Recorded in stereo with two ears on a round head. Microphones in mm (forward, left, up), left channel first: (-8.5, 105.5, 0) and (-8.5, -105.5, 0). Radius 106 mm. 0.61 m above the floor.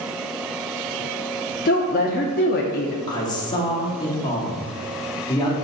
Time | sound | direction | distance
1.6 | a woman speaking | 40° left (ahead or behind) | 0.6 m
3.1 | a man speaking | 20° left (ahead or behind) | 1.4 m